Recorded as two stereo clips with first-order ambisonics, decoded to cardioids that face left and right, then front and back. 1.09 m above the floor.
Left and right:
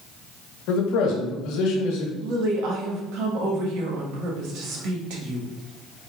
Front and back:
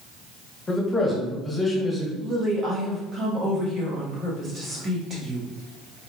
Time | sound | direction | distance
0.7 | a man speaking | 70° left | 1.0 m
2.2 | a woman speaking | 110° right | 1.3 m